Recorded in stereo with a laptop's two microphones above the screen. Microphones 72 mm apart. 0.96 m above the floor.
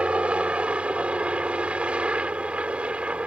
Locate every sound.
0.0 s a helicopter: 15° right (ahead or behind)